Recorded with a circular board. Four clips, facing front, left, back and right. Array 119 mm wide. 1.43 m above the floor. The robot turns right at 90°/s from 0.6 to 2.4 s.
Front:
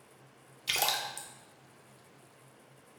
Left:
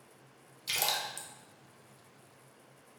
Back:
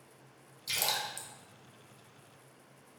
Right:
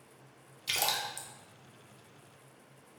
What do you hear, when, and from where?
0.7 s a splash: 20° right, 0.5 m; by 1.3 s 35° left, 0.5 m